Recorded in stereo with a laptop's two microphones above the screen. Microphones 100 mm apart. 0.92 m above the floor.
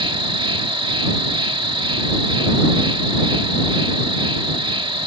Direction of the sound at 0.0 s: 55° right (ahead or behind).